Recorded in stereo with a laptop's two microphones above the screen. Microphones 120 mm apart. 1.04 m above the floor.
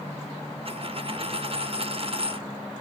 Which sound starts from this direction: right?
A dropped coin, at 0.7 s.